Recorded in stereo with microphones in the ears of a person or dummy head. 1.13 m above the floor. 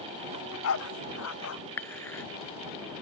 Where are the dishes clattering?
10° left (ahead or behind).